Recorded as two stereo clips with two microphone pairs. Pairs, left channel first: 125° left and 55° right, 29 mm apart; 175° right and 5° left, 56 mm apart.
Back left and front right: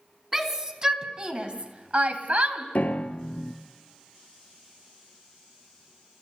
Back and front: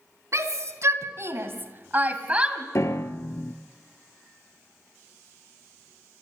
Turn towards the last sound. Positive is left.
turn(degrees=155)